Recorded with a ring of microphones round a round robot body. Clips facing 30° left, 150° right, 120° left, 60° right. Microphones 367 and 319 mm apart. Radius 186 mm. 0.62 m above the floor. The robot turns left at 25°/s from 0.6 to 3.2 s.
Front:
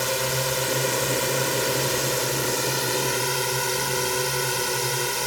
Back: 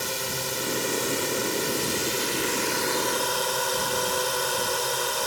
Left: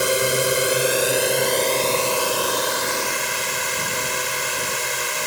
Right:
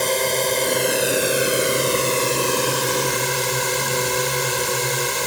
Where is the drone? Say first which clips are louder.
Front 6 dB, left 1 dB; 45° left; by 5.3 s 20° right.